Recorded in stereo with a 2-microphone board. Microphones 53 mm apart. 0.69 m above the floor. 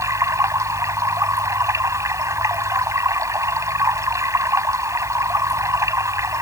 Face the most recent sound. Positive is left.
turn(degrees=-80)